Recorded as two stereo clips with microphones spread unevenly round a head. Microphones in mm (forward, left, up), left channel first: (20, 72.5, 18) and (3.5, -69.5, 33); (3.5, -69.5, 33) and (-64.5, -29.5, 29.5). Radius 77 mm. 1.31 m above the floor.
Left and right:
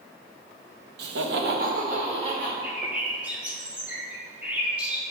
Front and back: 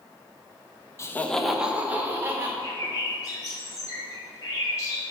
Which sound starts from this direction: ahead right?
A bird, at 2.6 s.